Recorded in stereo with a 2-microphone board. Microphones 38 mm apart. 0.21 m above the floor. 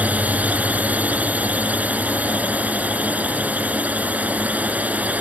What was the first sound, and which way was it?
A drone, 40° right (ahead or behind).